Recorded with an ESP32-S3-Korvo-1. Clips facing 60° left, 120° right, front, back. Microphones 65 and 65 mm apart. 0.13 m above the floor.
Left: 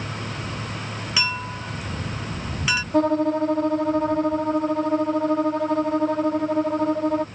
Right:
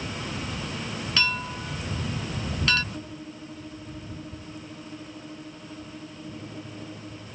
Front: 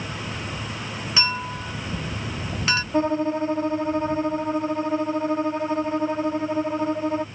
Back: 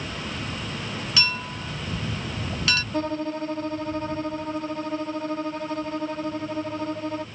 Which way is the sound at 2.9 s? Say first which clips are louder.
Left 20 dB, front 5 dB; 70° left.